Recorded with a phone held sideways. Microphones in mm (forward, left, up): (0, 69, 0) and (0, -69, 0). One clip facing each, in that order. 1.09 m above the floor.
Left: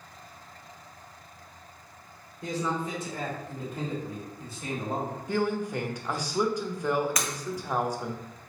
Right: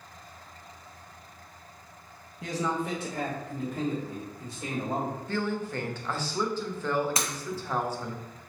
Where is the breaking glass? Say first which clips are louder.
Even; 30° right (ahead or behind), 0.6 m.